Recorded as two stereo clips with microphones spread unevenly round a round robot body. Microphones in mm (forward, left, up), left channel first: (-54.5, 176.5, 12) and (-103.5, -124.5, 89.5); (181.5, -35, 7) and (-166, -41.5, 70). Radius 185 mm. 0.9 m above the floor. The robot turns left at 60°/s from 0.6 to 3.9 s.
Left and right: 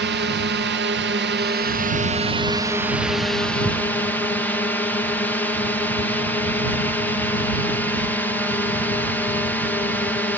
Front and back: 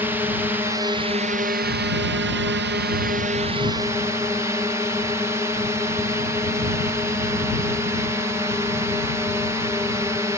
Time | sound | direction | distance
0.0 | a drone | 75° right | ?